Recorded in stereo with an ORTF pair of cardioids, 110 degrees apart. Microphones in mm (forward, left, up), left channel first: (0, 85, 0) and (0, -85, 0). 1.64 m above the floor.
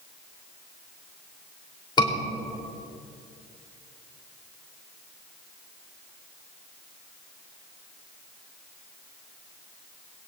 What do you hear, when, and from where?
2.0 s a scream: 25° left, 3.5 m